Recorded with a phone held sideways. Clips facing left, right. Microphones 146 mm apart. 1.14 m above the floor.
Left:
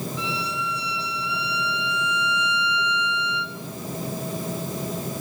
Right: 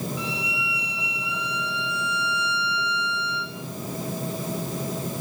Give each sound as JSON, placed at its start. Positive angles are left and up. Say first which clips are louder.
{"t": 0.2, "sound": "a violin", "louder": "left 2 dB", "side_deg": -15, "distance_m": 7.5}